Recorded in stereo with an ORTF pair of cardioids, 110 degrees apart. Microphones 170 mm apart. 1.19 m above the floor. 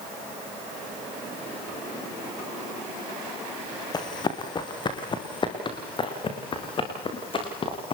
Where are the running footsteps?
25° left, 5 m; by 8.0 s 35° left, 10 m.